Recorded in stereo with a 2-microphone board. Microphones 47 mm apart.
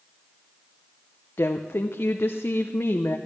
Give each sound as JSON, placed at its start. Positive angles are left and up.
{"t": 1.4, "sound": "a woman speaking", "side_deg": 65, "distance_m": 0.6}